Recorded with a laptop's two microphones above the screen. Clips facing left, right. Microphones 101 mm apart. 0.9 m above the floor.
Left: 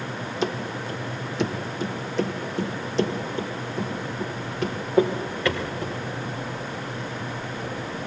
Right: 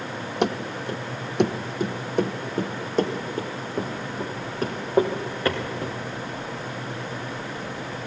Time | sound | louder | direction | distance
0.4 | running footsteps | right 3 dB | 65° right (ahead or behind) | 1.9 m